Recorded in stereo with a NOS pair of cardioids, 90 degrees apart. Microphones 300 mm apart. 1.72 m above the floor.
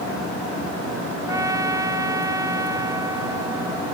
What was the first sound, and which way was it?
A trumpet, 10° right.